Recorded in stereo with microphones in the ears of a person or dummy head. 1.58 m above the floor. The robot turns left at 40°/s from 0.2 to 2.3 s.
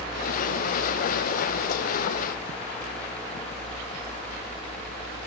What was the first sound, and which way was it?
Only background noise.